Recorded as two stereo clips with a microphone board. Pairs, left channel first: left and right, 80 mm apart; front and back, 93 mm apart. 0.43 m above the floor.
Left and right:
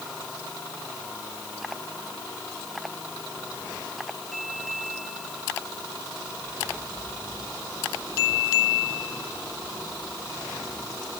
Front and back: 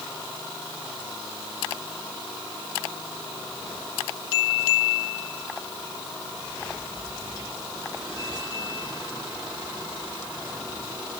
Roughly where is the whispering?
No whispering in this recording.